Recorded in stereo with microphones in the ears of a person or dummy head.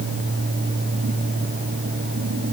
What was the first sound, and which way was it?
Only background noise.